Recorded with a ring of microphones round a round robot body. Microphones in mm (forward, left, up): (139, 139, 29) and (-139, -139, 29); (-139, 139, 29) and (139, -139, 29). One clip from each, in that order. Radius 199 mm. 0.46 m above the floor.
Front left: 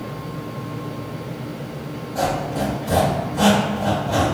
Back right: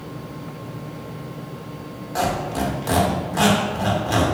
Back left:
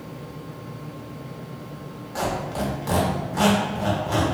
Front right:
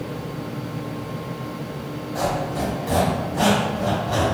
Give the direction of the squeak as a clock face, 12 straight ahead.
5 o'clock.